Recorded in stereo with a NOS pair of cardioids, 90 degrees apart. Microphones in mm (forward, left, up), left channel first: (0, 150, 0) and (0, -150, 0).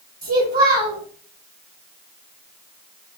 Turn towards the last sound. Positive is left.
turn(degrees=-25)